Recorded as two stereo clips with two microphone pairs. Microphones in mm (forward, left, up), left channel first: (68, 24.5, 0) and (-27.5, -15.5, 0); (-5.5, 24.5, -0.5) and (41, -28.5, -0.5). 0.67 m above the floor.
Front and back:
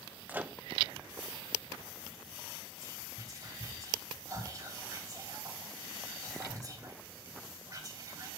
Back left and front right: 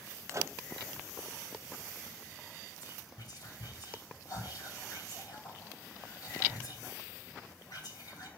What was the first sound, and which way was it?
A microwave, 85° right.